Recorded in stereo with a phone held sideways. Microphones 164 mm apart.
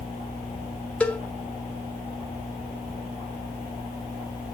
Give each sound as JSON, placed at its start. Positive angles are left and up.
{"t": 1.0, "sound": "a cowbell", "side_deg": 10, "distance_m": 1.0}